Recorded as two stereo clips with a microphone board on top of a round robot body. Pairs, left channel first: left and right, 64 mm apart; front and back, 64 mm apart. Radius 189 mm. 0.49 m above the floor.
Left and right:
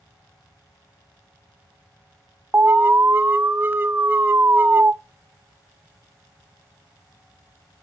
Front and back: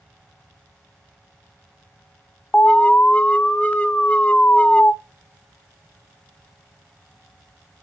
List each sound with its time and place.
2.5 s an alarm: 60° right, 1.0 m